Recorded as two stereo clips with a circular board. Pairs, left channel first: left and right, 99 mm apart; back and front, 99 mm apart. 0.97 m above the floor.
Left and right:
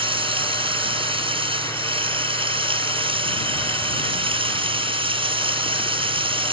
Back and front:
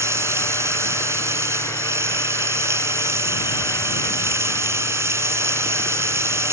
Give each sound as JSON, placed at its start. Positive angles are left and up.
{"t": 0.0, "sound": "running water", "azimuth_deg": -65}